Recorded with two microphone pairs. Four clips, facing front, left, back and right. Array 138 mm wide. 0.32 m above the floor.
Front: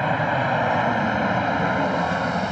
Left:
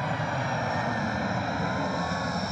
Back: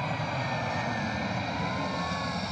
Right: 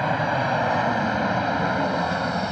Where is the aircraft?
40° right; by 2.5 s 30° right.